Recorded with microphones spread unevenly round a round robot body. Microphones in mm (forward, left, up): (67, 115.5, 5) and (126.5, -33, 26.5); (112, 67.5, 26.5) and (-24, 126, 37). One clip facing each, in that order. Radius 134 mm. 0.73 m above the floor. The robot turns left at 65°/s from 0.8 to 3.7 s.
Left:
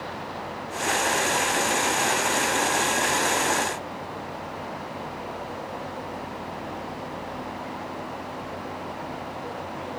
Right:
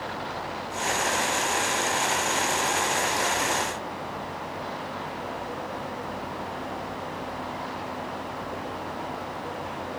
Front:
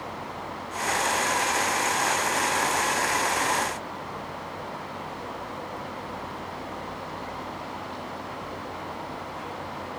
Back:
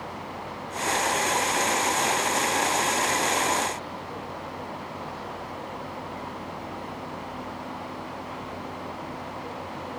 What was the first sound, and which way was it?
Only background noise.